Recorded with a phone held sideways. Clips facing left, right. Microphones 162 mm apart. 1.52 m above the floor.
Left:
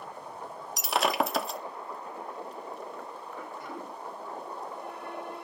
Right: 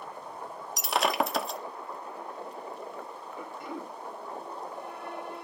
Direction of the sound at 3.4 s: 20° right (ahead or behind).